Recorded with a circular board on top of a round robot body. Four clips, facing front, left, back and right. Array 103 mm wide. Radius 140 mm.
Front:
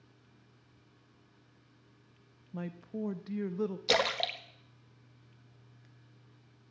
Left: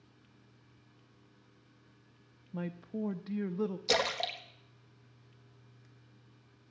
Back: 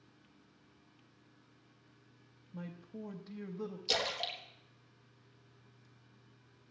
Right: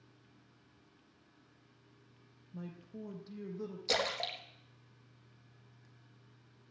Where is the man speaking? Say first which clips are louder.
Left 8 dB, front 7 dB; 50° left, 0.9 m.